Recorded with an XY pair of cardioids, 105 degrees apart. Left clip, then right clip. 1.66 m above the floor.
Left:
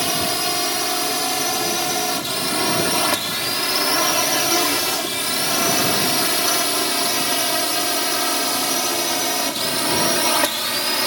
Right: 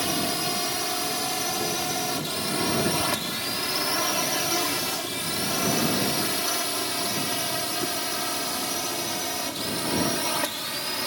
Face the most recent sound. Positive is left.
turn(degrees=55)